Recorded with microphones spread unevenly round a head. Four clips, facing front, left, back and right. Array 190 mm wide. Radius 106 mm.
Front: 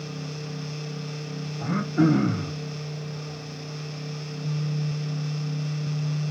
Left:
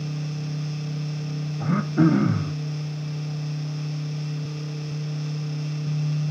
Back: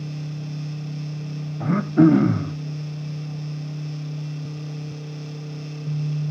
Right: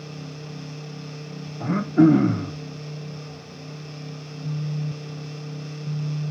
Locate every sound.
1.6 s throat clearing: 160° right, 0.6 m